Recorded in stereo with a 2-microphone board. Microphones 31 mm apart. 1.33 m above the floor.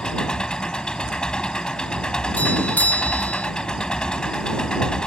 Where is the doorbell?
65° left (ahead or behind).